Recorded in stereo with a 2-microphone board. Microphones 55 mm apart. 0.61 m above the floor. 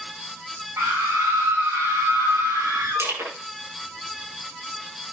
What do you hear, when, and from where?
0.8 s a scream: 70° right (ahead or behind), 6 m; by 3.1 s 80° right, 5.5 m
3.0 s crushing: 60° right (ahead or behind), 6.5 m